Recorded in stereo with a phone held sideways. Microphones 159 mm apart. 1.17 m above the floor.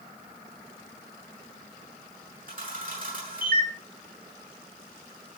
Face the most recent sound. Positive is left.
turn(degrees=-60)  # may be behind; listen again after turning